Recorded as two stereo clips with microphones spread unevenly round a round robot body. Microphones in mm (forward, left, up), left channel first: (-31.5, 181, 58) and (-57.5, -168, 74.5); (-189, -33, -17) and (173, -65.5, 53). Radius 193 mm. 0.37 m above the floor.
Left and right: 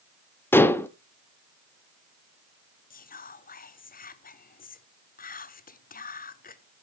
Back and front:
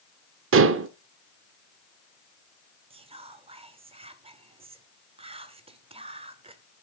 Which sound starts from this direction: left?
Whispering, at 2.9 s.